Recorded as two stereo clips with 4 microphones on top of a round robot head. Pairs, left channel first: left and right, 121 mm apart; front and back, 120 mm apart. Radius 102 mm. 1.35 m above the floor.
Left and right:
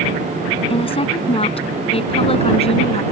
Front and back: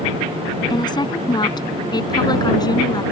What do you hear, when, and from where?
0.7 s a woman speaking: 55° left